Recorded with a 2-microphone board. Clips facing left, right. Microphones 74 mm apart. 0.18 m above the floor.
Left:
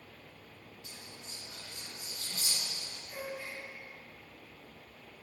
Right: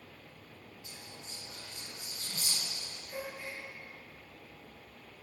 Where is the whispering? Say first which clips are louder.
Right 1 dB; 30° right (ahead or behind), 1.4 m.